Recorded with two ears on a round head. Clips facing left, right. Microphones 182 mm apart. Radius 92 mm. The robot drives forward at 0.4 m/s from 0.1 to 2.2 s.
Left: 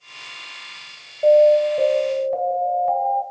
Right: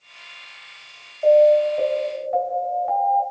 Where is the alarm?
50° left (ahead or behind), 2.5 m.